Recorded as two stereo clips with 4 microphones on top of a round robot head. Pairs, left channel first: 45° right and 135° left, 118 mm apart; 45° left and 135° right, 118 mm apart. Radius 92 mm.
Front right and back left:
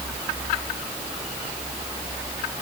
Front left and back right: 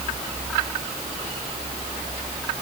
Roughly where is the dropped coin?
No dropped coin in this recording.